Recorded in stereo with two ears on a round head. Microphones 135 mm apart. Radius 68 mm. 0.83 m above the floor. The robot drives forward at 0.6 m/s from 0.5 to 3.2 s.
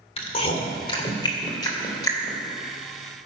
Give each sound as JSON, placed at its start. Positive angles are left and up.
{"t": 0.2, "sound": "chewing", "side_deg": 40, "distance_m": 1.7}